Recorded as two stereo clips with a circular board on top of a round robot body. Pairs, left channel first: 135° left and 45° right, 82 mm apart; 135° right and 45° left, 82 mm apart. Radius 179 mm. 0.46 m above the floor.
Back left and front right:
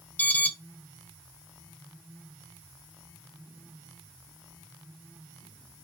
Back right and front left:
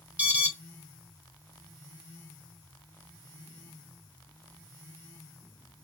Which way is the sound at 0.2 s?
90° left.